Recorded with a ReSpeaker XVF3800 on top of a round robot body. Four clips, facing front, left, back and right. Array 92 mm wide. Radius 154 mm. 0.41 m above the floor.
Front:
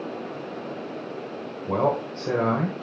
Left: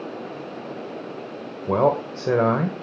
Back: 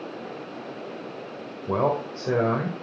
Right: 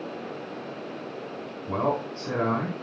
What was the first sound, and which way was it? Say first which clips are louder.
A man speaking: left 7 dB, even; 95° left.